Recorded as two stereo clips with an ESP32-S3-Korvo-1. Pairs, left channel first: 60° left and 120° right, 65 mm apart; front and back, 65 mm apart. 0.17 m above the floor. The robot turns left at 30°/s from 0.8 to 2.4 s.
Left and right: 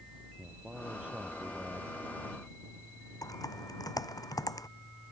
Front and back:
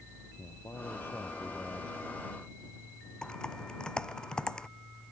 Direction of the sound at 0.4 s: 40° right.